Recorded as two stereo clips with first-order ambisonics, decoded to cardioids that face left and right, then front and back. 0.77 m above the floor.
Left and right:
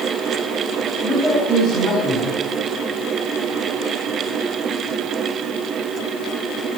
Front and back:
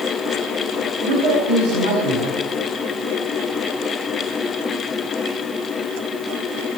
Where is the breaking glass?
I don't hear breaking glass.